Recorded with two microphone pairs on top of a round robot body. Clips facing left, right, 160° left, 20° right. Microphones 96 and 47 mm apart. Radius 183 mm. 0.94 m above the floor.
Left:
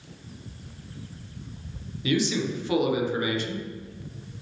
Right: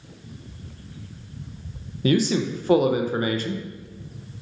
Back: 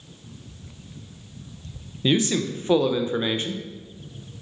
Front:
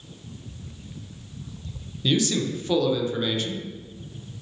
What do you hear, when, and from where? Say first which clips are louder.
2.0 s a man speaking: right 4 dB, back 2 dB; 140° right, 0.5 m